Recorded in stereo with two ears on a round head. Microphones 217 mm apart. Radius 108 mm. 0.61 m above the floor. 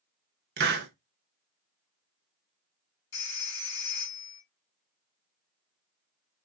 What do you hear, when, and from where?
0.6 s a hiss: 45° right (ahead or behind), 1.0 m
3.1 s a phone ringing: 55° left (ahead or behind), 3 m